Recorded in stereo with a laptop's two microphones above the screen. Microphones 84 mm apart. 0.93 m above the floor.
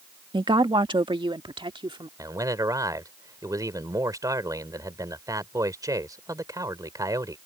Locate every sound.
0.3 s a woman speaking: 65° right (ahead or behind); by 2.1 s 75° right (ahead or behind)
2.2 s a man speaking: 45° right (ahead or behind)